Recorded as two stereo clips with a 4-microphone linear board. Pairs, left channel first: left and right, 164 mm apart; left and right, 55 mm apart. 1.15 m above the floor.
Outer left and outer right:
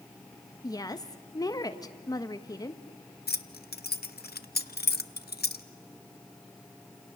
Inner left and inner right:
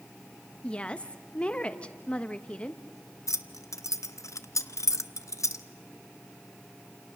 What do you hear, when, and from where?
0.6 s a woman speaking: 20° left (ahead or behind), 1.3 m
3.3 s keys jangling: 75° left (ahead or behind), 0.7 m